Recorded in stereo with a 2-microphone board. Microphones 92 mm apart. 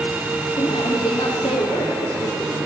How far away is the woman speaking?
About 6 m.